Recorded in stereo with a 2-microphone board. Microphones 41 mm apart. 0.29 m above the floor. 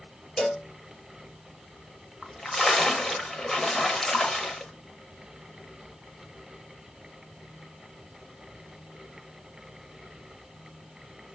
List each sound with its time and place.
0.4 s a cowbell: 20° left (ahead or behind), 3 m
2.2 s a splash: 10° left (ahead or behind), 0.8 m